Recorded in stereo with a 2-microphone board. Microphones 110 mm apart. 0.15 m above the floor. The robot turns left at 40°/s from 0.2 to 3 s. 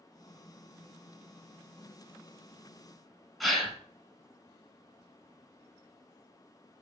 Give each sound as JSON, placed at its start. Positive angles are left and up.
{"t": 3.4, "sound": "a gasp", "side_deg": 0, "distance_m": 0.9}